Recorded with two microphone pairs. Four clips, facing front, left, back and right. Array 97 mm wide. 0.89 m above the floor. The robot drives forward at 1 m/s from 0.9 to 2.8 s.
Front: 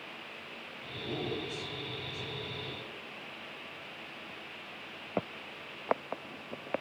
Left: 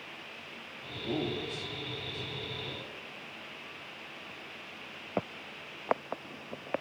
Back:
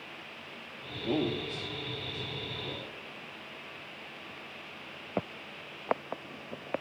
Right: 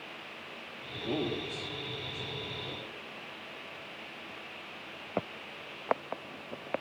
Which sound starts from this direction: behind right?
A man speaking, at 1.0 s.